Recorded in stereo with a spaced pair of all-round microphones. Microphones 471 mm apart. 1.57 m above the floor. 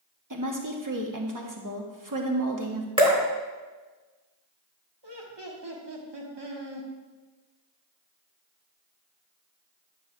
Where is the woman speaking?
40° right (ahead or behind), 1.1 m.